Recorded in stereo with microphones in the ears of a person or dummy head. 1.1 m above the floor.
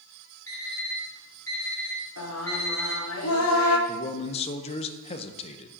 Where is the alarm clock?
15° left (ahead or behind), 2.5 m.